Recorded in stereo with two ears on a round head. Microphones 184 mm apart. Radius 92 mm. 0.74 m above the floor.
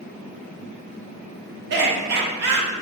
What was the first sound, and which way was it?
Laughter, 55° right (ahead or behind).